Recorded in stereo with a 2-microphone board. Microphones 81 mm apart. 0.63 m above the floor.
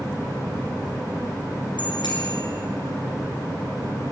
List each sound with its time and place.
1.8 s a bicycle bell: 85° left, 6 m